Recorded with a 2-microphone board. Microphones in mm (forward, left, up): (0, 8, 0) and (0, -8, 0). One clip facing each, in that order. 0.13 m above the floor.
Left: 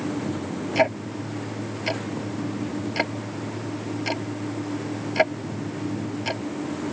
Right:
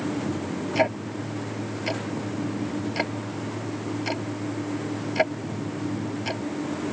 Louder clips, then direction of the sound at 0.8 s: Left 2 dB; 15° left (ahead or behind).